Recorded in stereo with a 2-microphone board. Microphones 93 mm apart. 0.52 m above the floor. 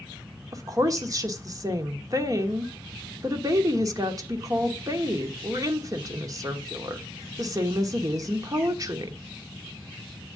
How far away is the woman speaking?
About 1.3 m.